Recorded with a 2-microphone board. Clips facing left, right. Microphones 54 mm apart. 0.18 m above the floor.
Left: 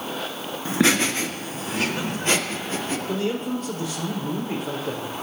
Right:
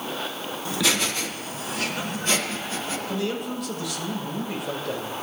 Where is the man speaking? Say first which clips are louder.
Left 3 dB; 40° left (ahead or behind), 5 m.